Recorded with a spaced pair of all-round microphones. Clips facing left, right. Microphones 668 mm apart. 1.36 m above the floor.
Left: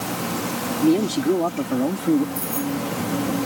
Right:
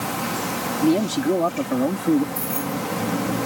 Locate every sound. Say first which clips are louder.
0.8 s a man speaking: left 1 dB; 5° right (ahead or behind); by 2.2 s centre (ahead or behind)
2.4 s keys jangling: left 2 dB; 45° left (ahead or behind)